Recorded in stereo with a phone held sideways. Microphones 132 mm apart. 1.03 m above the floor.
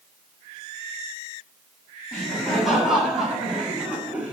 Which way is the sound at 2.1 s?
Centre (ahead or behind).